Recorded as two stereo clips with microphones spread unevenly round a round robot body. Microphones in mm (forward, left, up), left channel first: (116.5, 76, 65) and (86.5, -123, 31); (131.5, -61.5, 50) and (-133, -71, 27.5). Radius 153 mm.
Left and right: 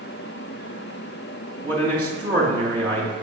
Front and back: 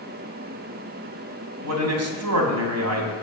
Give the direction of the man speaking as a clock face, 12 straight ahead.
6 o'clock.